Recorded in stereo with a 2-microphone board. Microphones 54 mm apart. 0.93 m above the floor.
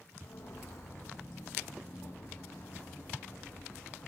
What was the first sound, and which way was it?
Footsteps, 65° left (ahead or behind).